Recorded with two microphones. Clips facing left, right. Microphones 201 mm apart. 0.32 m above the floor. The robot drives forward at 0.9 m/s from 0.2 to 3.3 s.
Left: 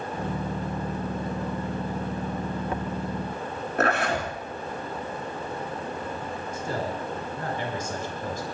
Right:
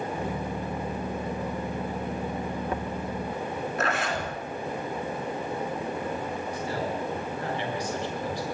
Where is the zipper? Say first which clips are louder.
Left 7 dB; 60° left (ahead or behind), 3 m.